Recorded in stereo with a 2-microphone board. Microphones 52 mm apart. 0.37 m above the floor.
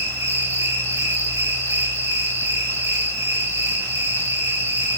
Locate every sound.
0.0 s an insect: 65° right (ahead or behind), 10 m